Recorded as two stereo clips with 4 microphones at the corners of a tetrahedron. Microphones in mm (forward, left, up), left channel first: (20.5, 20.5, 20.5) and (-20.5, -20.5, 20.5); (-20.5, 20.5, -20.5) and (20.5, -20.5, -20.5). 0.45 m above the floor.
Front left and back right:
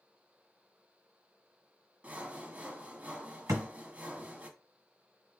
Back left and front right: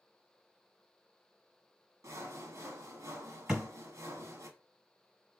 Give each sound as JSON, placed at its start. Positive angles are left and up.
{"t": 2.0, "sound": "sawing", "azimuth_deg": -75, "distance_m": 0.7}
{"t": 3.5, "sound": "a thud", "azimuth_deg": -125, "distance_m": 1.5}